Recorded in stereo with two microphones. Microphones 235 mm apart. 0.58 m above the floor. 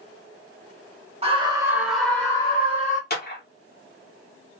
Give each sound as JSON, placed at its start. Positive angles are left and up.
{"t": 1.2, "sound": "a scream", "side_deg": -25, "distance_m": 0.9}
{"t": 3.1, "sound": "a clap", "side_deg": 40, "distance_m": 1.0}